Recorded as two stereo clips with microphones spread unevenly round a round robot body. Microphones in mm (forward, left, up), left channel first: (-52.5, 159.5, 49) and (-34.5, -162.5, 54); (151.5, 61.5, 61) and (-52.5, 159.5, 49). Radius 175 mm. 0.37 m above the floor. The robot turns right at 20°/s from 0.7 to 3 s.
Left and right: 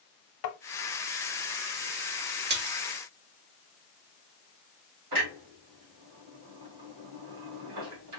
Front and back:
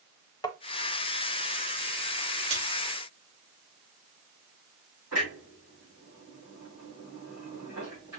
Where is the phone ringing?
No phone ringing in this recording.